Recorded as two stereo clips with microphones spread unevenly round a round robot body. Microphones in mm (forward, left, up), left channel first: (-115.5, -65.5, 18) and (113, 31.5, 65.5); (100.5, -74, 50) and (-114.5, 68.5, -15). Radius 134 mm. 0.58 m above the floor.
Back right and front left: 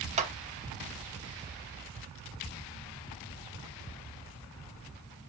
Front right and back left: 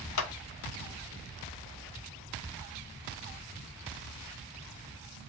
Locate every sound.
0.2 s a clap: 40° right, 1.1 m